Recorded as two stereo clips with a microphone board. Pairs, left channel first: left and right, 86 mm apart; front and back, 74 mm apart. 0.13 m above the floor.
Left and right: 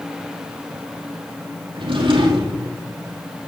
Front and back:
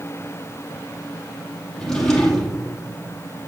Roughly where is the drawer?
Right.